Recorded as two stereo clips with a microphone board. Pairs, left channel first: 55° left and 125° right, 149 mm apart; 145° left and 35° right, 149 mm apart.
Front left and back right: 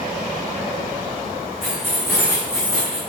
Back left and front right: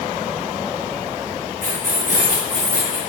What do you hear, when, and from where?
1.6 s keys jangling: 40° right, 3.5 m; by 3.0 s 25° right, 3.5 m